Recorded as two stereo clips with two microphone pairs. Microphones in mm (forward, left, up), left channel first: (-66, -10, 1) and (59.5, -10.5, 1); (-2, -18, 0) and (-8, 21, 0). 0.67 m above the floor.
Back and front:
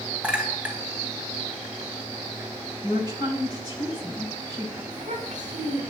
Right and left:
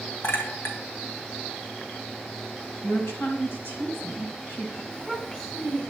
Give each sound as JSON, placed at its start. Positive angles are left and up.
{"t": 0.2, "sound": "a clink", "azimuth_deg": -80, "distance_m": 3.5}
{"t": 2.8, "sound": "a woman speaking", "azimuth_deg": -55, "distance_m": 5.0}
{"t": 4.9, "sound": "a child speaking", "azimuth_deg": -15, "distance_m": 5.0}